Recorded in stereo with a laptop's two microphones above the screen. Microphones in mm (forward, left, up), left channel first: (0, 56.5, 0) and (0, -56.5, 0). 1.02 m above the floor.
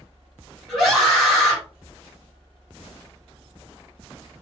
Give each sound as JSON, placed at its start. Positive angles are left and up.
{"t": 0.7, "sound": "a scream", "side_deg": 5, "distance_m": 1.7}